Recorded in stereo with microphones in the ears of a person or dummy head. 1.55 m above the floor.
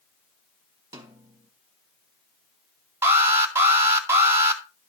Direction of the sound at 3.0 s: 20° right (ahead or behind).